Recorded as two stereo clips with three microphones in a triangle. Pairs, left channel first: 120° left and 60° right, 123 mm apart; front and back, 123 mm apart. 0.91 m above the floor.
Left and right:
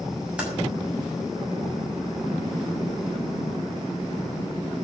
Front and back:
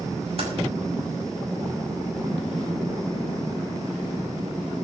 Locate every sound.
0.4 s typing on a keyboard: 140° right, 6.5 m